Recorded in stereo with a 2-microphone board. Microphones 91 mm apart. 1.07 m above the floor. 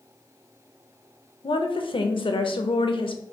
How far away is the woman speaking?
About 0.6 m.